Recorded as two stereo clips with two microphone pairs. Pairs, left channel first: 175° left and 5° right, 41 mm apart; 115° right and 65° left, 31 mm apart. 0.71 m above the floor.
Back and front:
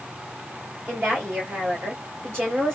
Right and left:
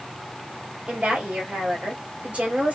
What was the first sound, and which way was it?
A woman speaking, 20° left.